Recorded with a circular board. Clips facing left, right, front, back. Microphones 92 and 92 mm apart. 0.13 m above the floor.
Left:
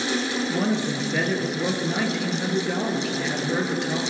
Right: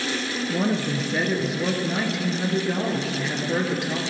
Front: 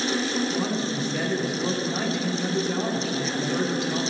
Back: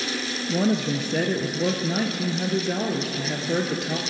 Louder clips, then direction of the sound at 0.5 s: Right 2 dB, back 3 dB; 175° right.